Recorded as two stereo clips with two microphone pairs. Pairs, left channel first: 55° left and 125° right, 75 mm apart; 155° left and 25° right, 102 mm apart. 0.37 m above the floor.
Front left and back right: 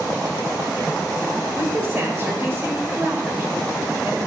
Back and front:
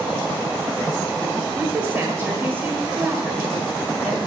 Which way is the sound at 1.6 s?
85° right.